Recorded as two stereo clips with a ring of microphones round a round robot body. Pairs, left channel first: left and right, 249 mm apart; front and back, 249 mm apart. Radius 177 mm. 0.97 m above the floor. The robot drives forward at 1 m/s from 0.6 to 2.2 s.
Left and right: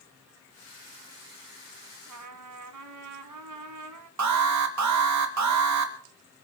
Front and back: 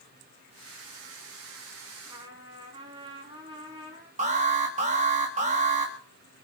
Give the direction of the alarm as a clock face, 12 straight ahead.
4 o'clock.